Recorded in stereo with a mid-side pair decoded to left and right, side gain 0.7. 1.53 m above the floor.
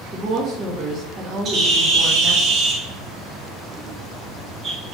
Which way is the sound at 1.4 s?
35° right.